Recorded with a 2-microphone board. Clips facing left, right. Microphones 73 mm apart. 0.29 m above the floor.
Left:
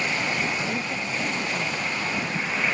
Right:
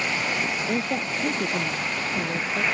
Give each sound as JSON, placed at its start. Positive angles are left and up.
{"t": 0.7, "sound": "a woman speaking", "side_deg": -45}